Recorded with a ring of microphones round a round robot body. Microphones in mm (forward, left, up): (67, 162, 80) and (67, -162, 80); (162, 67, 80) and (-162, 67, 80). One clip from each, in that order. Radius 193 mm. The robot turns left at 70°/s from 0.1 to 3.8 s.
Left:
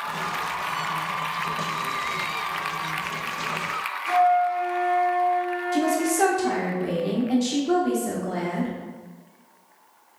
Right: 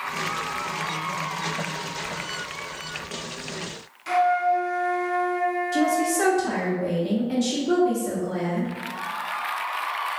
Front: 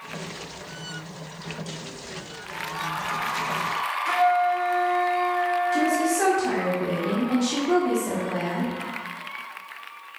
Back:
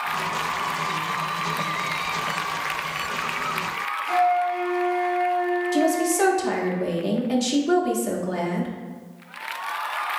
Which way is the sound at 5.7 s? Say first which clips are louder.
Left 2 dB, back 1 dB; 165° left.